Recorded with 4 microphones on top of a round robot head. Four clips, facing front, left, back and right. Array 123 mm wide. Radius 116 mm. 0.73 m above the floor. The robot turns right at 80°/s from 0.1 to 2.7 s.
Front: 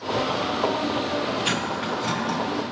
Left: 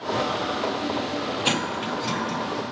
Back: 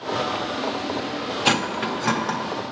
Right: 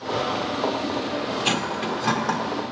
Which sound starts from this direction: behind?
Cutlery clinking, at 1.4 s.